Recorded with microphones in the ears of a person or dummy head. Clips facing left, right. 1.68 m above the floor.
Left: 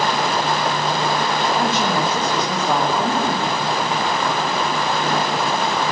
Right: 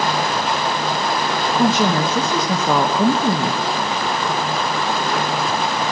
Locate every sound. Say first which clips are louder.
1.6 s a woman speaking: right 3 dB; 60° right (ahead or behind), 1.1 m